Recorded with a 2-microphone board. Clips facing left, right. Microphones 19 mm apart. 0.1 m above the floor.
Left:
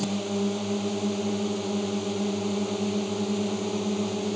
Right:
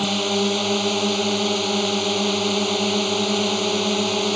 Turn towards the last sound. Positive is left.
turn(degrees=-50)  # may be behind; listen again after turning